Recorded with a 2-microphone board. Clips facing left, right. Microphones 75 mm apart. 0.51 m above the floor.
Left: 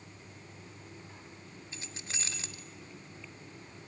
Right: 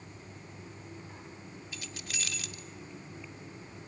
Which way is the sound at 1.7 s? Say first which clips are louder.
Right 1 dB; 30° left (ahead or behind).